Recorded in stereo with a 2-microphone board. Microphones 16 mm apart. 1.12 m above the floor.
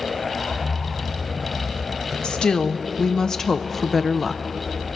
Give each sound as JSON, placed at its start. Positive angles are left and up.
{"t": 2.2, "sound": "a woman speaking", "side_deg": 60, "distance_m": 1.2}